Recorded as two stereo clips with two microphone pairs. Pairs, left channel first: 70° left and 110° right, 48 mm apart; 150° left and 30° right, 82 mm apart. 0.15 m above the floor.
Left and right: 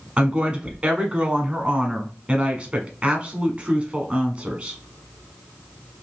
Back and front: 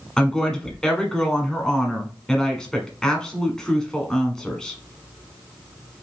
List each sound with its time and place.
0.2 s a woman speaking: 130° right, 1.2 m